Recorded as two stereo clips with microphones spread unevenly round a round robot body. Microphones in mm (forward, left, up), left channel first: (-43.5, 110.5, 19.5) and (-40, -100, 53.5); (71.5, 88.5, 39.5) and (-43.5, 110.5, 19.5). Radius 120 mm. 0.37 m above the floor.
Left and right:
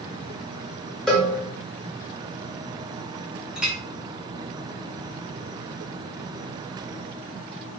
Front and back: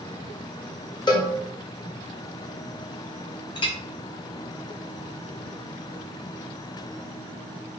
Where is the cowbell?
20° left, 0.8 m.